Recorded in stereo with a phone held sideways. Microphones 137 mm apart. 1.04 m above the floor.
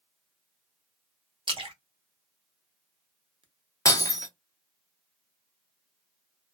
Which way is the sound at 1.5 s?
40° right (ahead or behind).